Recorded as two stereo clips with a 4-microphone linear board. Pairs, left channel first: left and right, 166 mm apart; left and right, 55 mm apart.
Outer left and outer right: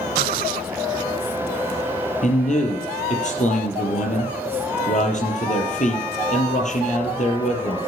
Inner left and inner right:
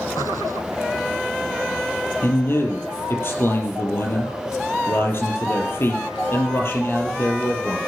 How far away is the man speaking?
About 5 m.